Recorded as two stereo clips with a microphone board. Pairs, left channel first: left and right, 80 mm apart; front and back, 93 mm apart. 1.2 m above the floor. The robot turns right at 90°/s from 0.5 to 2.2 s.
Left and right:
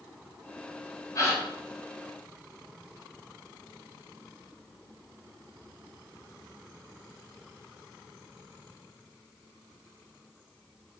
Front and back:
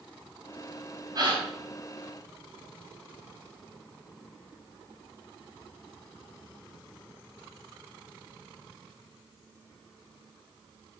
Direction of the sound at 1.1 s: 130° left.